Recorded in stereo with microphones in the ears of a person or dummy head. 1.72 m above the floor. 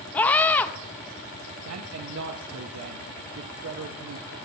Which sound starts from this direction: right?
A man speaking, at 1.6 s.